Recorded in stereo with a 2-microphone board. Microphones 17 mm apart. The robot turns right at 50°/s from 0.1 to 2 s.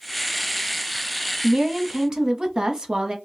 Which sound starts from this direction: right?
A woman speaking, at 1.4 s.